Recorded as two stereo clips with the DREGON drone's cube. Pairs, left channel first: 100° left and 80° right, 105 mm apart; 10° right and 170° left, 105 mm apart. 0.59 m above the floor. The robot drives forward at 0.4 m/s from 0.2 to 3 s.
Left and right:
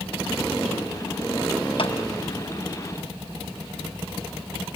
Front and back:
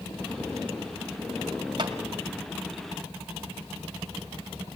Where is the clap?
130° left, 3 m.